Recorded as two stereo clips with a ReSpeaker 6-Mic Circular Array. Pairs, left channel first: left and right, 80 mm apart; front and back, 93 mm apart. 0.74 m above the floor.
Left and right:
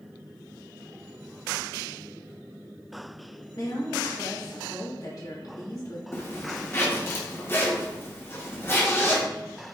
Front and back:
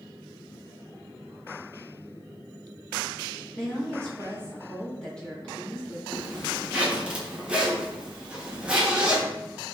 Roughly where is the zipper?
Left.